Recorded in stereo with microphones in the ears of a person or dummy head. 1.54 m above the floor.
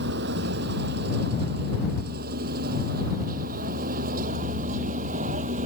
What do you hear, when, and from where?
0.0 s a vehicle: 60° right (ahead or behind); by 5.7 s 45° right (ahead or behind)